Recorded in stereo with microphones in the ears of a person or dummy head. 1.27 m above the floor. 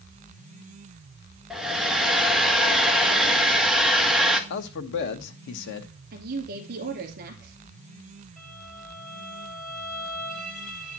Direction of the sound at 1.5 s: 5° right (ahead or behind).